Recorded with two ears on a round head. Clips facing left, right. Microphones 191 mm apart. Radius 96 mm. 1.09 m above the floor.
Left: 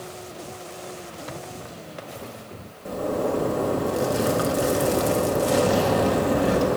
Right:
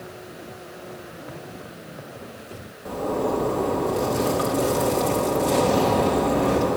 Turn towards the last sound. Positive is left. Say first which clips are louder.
# even
turn(degrees=10)  # may be behind; listen again after turning